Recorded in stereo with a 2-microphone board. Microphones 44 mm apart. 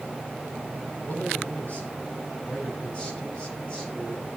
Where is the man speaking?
40° left (ahead or behind), 5 m; by 4.3 s 20° left (ahead or behind), 5.5 m.